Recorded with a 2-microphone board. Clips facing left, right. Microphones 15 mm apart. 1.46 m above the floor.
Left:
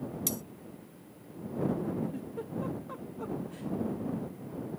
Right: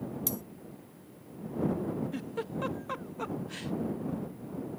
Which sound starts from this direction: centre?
Cutlery clinking, at 0.3 s.